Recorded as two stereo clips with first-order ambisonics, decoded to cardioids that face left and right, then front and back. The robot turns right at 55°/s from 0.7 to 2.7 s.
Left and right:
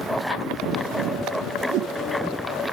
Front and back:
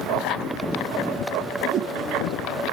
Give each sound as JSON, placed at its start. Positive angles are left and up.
{"t": 1.7, "sound": "a whoosh", "azimuth_deg": -130, "distance_m": 0.7}